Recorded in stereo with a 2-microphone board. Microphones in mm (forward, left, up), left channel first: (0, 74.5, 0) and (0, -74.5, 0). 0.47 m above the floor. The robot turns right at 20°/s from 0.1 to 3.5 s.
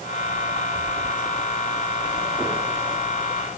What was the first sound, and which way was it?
Only background noise.